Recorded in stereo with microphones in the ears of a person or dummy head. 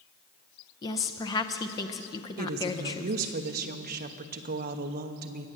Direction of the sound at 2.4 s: 45° right (ahead or behind).